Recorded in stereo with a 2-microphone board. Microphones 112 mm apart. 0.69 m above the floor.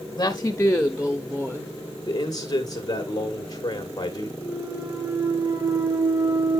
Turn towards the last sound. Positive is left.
turn(degrees=-25)  # may be behind; listen again after turning